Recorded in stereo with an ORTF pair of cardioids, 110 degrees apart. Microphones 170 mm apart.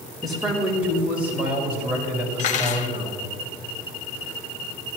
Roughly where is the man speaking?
Ahead right.